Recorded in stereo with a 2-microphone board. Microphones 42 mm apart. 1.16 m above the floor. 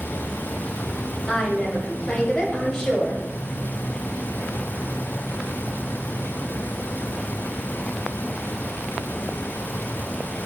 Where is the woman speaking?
20° left (ahead or behind), 7.5 m.